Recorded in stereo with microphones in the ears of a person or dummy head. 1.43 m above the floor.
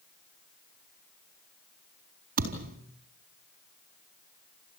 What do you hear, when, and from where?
2.4 s a thud: 45° right (ahead or behind), 4 m